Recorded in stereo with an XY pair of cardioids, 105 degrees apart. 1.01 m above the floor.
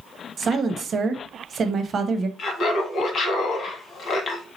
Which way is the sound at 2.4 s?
60° left.